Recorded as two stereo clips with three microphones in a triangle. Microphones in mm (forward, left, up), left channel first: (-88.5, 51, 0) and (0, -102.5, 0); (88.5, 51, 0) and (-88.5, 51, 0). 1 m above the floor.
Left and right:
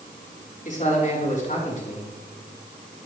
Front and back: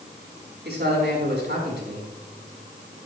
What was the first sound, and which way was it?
A man speaking, 165° left.